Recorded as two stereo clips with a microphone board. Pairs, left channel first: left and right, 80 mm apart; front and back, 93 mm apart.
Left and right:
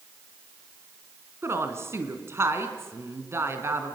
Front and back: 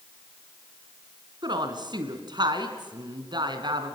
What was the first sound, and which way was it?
A woman speaking, 145° right.